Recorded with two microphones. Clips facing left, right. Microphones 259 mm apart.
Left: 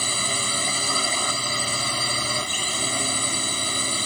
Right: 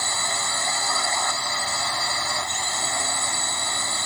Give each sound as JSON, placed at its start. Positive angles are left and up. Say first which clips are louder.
{"t": 0.0, "sound": "a drone", "louder": "left 3 dB", "side_deg": 35}